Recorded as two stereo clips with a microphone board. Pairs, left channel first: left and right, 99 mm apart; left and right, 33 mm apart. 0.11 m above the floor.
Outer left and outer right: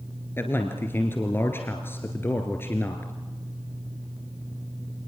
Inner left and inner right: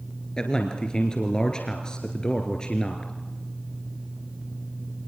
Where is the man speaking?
25° left (ahead or behind), 1.5 m.